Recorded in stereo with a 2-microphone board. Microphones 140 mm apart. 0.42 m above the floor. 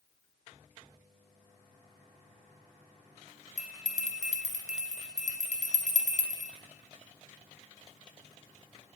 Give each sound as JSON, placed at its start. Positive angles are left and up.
{"t": 3.6, "sound": "a bell", "side_deg": 60, "distance_m": 3.5}